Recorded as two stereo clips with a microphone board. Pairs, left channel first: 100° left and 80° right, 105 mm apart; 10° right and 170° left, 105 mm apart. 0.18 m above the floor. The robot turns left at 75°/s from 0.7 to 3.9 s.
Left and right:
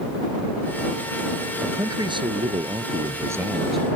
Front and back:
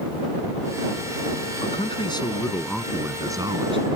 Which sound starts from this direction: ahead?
A man speaking, at 1.6 s.